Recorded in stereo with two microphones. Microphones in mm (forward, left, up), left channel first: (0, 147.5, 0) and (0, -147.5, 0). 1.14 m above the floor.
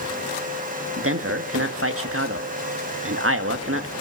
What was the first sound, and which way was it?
A man speaking, 45° right (ahead or behind).